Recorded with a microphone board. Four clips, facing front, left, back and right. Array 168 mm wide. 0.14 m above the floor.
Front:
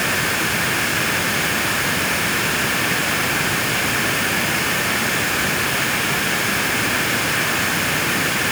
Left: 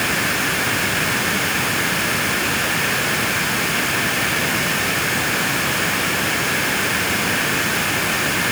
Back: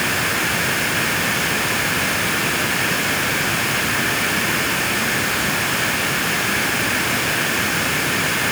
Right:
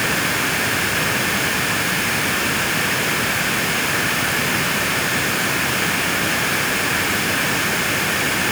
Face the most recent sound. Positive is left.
No sound to turn to.